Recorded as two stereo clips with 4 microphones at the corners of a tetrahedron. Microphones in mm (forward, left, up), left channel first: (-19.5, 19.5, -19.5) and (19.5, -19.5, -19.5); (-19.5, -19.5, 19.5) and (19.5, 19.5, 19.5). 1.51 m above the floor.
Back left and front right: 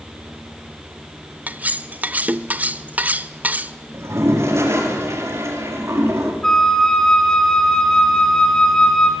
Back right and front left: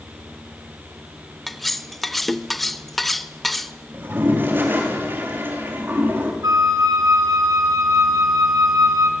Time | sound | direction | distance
1.5 | cutlery clinking | 45° right | 0.8 m
3.9 | a toilet flushing | 5° right | 4.5 m
6.4 | a flute | 55° left | 3 m